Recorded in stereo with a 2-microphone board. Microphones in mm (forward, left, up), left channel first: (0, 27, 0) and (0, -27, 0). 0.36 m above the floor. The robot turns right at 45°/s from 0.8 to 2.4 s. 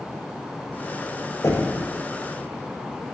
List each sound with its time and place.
1.4 s knocking: 70° left (ahead or behind), 6 m; by 1.8 s 85° left, 6 m